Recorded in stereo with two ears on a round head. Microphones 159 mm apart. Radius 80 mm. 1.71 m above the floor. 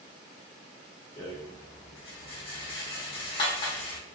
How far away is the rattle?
About 1.3 m.